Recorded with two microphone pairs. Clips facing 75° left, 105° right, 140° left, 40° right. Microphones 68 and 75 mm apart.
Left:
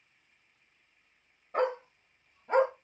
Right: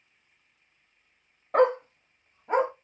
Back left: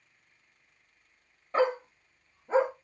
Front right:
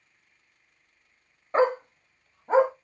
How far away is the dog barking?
About 0.6 m.